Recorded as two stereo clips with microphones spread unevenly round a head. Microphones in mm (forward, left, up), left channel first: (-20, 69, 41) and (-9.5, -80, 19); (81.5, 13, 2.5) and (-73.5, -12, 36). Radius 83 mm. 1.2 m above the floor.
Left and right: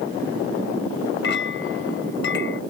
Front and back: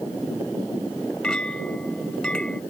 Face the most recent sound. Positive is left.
turn(degrees=95)